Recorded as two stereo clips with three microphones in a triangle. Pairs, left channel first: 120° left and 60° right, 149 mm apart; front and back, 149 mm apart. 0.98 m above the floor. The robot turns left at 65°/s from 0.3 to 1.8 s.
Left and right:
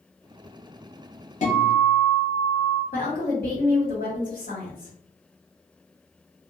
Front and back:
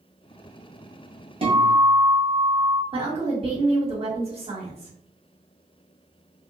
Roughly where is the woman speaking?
Behind left.